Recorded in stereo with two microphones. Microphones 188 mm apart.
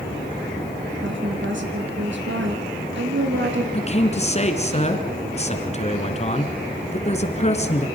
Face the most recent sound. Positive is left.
turn(degrees=35)  # may be behind; listen again after turning